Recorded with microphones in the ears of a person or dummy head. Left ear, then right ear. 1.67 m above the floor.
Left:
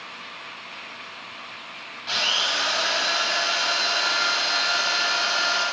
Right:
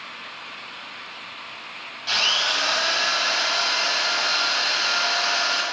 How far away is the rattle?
No rattle in this recording.